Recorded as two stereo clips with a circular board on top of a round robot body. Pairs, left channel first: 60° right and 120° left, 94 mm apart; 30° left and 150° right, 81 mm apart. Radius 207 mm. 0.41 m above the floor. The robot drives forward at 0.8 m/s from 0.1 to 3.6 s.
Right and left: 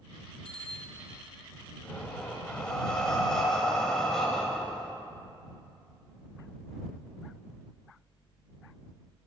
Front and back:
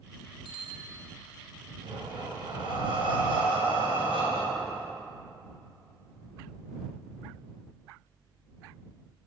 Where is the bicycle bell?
140° right, 4 m; by 1.0 s 145° right, 4.5 m.